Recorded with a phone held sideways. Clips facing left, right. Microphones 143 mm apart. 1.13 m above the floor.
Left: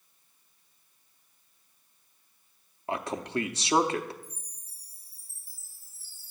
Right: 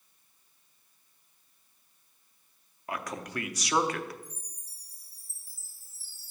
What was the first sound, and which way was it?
A man speaking, 25° left (ahead or behind).